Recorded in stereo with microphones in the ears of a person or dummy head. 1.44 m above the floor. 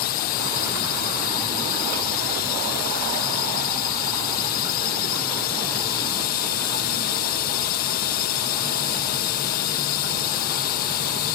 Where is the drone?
50° left (ahead or behind).